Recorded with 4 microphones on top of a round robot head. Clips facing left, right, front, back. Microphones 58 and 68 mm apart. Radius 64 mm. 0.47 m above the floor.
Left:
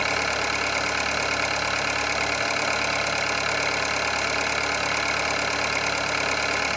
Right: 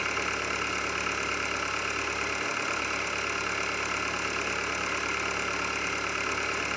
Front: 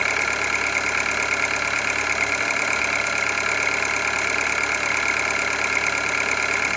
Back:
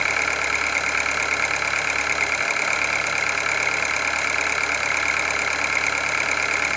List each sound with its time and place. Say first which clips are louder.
0.0 s an engine running: left 6 dB, even; 90° left, 1.5 m